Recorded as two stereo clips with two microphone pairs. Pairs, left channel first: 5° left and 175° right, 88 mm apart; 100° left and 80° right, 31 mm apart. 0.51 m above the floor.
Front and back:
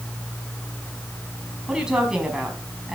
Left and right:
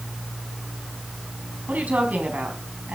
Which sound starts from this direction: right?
A woman speaking, at 1.7 s.